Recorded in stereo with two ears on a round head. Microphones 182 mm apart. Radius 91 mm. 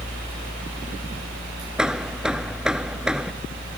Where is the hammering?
5° right (ahead or behind).